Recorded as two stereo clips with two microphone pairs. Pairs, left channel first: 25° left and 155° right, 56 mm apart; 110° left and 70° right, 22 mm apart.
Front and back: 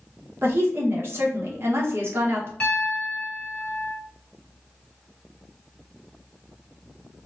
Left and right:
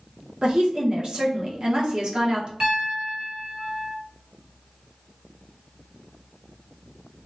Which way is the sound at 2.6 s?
35° right.